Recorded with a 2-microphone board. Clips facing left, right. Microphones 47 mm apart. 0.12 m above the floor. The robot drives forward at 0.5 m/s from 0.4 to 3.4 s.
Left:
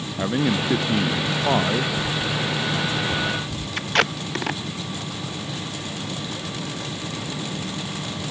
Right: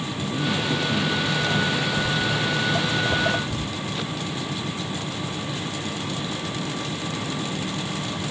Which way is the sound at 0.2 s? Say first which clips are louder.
Left 5 dB; 65° left (ahead or behind).